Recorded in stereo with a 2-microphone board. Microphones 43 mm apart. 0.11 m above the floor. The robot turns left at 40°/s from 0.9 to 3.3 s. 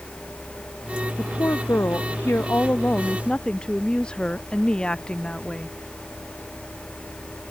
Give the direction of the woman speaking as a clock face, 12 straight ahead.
8 o'clock.